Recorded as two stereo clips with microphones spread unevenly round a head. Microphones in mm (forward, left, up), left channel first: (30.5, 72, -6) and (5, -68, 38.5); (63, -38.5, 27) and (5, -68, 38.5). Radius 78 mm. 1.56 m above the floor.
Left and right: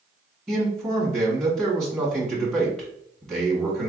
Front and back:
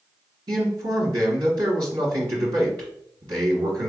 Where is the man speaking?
170° left, 1.2 m.